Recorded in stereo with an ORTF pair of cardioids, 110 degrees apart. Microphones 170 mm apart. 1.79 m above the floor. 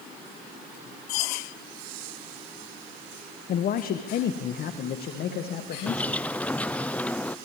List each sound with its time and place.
3.5 s a man speaking: 55° left, 1.5 m; by 6.2 s 65° left, 3.5 m
5.9 s a bird: 10° left, 0.7 m